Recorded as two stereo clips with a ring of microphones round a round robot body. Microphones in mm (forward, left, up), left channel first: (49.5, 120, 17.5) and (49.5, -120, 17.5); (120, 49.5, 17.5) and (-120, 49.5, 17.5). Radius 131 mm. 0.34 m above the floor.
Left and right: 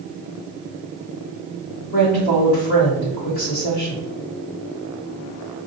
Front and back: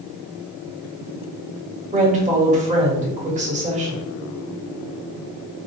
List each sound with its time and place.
1.9 s a woman speaking: 130° left, 1.5 m